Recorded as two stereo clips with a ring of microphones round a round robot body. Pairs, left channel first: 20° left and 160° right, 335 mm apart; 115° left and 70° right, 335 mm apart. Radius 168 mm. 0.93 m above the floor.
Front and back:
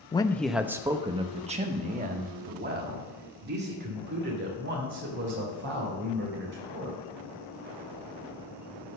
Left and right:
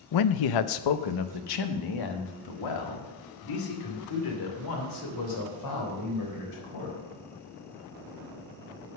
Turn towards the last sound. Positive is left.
turn(degrees=145)